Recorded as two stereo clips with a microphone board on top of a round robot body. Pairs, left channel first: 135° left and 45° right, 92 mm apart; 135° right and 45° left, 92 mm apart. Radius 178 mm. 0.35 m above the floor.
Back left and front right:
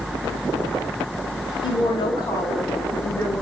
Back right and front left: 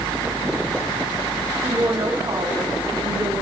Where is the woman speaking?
105° left, 3.5 m; by 3.4 s 65° left, 4.5 m.